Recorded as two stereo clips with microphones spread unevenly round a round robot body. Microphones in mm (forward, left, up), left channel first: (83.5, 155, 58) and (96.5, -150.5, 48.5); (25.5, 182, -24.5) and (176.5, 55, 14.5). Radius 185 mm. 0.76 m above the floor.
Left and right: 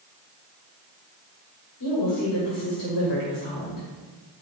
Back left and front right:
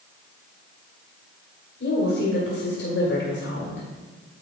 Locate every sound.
1.8 s a woman speaking: 120° left, 1.9 m